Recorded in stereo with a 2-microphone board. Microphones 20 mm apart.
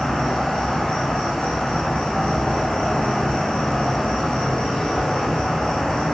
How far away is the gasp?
No gasp in this recording.